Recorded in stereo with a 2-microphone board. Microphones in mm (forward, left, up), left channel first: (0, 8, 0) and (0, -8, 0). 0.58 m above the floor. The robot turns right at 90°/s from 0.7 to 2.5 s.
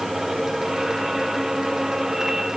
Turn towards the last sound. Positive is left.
No sound to turn to.